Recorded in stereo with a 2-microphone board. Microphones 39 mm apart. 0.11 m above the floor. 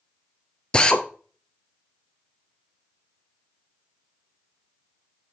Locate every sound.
0.7 s a drill: 25° left (ahead or behind), 0.7 m